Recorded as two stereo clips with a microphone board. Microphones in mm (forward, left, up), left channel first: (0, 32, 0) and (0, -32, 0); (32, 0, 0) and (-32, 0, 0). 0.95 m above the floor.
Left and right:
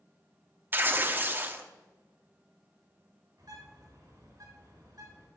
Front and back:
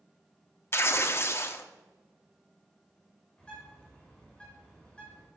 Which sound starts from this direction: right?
A bird, at 3.4 s.